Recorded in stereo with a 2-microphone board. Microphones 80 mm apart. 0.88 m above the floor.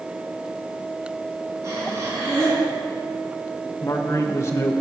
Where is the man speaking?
35° left (ahead or behind), 0.7 m.